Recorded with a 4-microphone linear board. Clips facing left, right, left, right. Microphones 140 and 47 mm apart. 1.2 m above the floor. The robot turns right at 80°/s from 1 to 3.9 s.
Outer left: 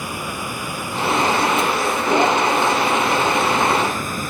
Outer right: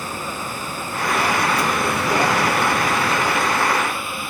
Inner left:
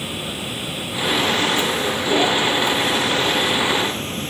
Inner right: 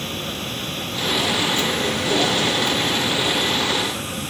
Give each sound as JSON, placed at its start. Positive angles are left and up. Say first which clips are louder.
{"t": 0.0, "sound": "running water", "louder": "outer left 1 dB, even", "azimuth_deg": 170}